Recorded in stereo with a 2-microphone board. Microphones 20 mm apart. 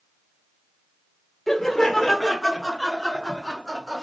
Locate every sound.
1.5 s laughter: 10° left (ahead or behind), 1.1 m; by 4.0 s centre (ahead or behind), 1.3 m